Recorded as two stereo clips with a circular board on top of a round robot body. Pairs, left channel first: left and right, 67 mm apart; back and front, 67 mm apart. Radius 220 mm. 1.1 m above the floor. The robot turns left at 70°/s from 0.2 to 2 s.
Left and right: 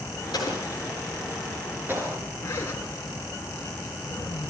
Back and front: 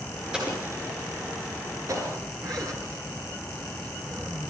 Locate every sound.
0.3 s an explosion: 80° left, 7.5 m; by 2.2 s 40° right, 7.5 m
2.4 s a zipper: 30° left, 5 m